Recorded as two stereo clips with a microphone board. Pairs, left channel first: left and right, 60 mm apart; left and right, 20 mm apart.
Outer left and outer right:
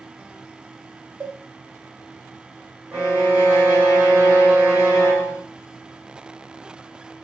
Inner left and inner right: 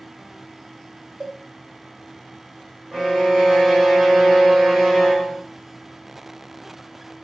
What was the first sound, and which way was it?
A cowbell, 30° right (ahead or behind).